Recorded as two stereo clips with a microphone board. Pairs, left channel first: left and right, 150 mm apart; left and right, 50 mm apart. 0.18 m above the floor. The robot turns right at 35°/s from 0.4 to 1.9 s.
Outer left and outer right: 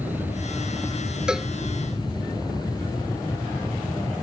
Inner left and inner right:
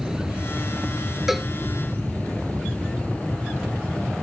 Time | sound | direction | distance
0.0 | an aircraft | 10° right (ahead or behind) | ?
1.3 | a cowbell | 5° right (ahead or behind) | ?